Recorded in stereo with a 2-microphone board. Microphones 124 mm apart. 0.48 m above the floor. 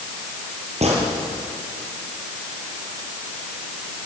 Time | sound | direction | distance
0.8 | a gunshot | 60° right (ahead or behind) | 6 m